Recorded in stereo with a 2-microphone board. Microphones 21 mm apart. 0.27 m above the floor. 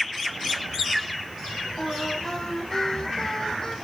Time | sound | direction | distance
1.8 | singing | 20° left (ahead or behind) | 7.5 m